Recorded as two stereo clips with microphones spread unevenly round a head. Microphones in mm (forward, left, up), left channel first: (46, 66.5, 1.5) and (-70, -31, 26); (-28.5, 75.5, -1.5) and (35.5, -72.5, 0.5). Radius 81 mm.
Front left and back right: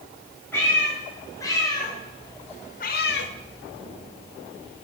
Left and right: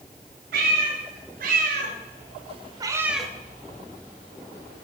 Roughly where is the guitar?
I don't hear a guitar.